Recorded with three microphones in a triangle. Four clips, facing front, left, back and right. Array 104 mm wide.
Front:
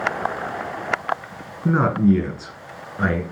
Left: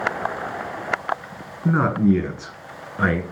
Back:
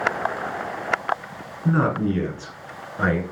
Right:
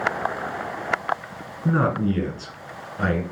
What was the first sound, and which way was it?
A man speaking, 30° left.